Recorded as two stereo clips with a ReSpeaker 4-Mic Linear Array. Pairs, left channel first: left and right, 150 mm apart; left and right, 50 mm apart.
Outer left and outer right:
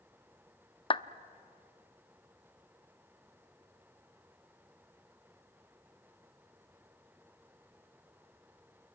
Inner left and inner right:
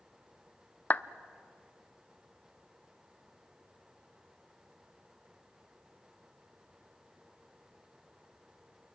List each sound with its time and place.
0.9 s a clap: 35° left (ahead or behind), 0.7 m